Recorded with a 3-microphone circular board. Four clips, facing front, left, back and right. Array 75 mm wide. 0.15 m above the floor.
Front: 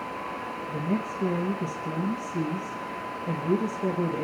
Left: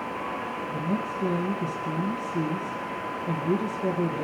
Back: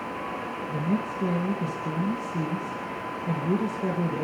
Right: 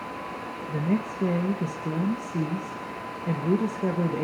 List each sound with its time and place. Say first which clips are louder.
0.7 s a woman speaking: right 4 dB, back 1 dB; 95° right, 3 m